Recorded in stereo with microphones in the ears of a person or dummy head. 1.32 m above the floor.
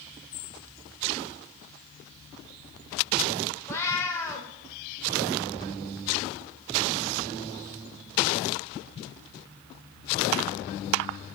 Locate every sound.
3.7 s a cat meowing: 15° left (ahead or behind), 1.5 m